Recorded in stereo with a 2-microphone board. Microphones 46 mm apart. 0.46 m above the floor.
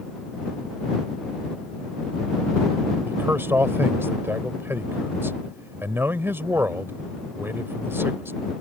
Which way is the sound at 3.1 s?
60° right (ahead or behind).